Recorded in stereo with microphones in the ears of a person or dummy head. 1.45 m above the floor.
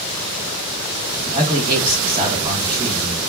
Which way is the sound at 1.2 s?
20° right (ahead or behind).